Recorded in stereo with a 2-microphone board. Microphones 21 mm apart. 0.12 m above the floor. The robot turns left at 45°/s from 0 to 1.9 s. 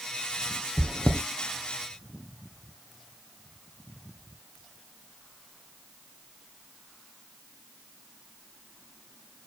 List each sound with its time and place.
0.8 s chewing: 55° left (ahead or behind), 2 m; by 1.2 s 75° left (ahead or behind), 2 m